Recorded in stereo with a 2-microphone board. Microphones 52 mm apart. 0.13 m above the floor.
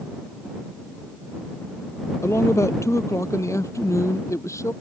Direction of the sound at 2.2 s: 65° left (ahead or behind).